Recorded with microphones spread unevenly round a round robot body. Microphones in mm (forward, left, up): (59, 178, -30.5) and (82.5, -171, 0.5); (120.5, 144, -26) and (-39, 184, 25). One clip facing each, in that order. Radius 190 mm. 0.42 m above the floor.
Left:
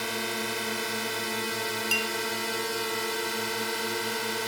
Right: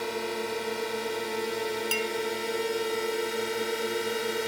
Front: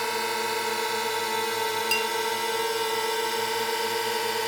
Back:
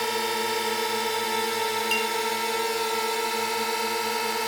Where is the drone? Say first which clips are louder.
Right 3 dB, back 2 dB; 95° left; by 4.5 s 55° left.